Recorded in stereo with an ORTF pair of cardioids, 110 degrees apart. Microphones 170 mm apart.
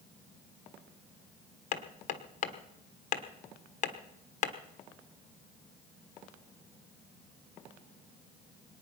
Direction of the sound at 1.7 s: 45° left.